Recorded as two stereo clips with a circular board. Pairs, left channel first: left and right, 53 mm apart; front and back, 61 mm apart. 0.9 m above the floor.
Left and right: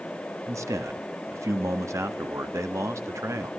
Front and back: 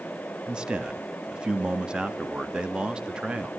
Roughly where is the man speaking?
Right.